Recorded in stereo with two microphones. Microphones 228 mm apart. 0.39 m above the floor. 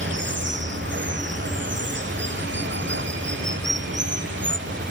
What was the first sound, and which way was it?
Running water, 55° right (ahead or behind).